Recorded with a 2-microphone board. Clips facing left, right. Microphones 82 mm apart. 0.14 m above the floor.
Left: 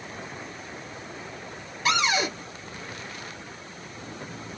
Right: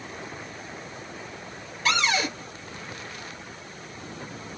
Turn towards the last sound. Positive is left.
turn(degrees=10)  # may be behind; listen again after turning